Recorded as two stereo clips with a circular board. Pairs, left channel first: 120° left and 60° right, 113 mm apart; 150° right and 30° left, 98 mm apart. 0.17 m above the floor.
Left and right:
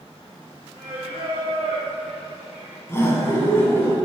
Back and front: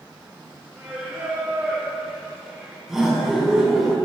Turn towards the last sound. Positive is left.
turn(degrees=110)